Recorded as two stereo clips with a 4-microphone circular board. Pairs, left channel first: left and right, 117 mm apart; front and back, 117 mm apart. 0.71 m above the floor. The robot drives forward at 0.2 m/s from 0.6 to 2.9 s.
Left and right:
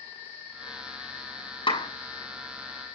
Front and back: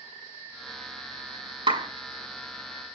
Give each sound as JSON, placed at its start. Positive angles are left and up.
{"t": 1.7, "sound": "a clap", "azimuth_deg": 135, "distance_m": 6.0}